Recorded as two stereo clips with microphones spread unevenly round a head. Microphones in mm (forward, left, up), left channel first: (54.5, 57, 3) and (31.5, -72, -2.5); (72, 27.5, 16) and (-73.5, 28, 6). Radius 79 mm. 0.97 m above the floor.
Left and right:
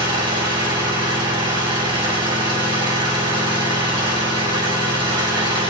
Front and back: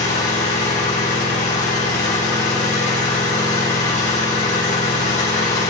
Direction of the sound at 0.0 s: 45° right.